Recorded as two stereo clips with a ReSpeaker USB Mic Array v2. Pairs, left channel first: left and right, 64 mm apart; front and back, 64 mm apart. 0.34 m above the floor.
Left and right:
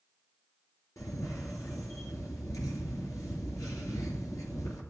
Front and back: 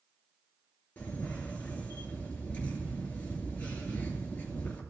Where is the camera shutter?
65° left, 2.5 m.